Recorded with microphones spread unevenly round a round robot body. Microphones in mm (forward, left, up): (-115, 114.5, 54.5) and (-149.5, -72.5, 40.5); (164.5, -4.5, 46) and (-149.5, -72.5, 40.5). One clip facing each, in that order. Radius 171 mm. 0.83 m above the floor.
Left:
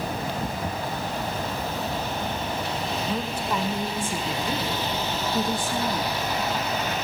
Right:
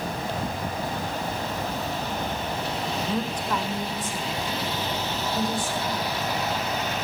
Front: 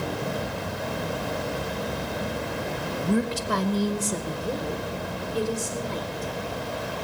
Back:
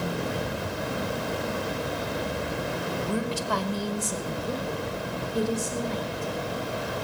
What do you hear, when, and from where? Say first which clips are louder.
3.0 s a woman speaking: even, front 7 dB; 25° right, 1.0 m; by 6.3 s 100° left, 1.7 m